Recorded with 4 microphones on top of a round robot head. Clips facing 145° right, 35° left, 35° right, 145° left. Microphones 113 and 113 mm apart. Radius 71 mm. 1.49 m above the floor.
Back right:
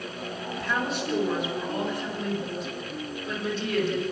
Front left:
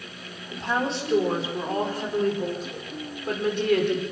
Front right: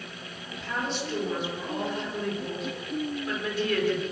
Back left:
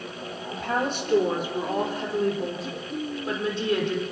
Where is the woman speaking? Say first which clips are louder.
Front left 3 dB, back left 5 dB; 100° left, 5 m; by 4.0 s 75° left, 5.5 m.